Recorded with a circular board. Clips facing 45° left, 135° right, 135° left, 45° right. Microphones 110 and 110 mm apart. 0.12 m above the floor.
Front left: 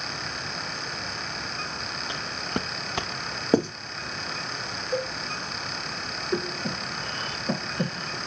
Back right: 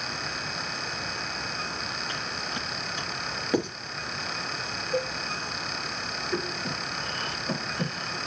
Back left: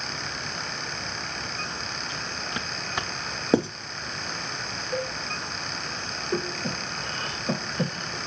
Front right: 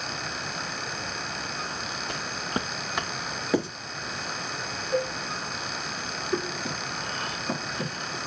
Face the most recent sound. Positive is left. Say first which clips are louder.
# front left 3 dB, back left 1 dB
turn(degrees=105)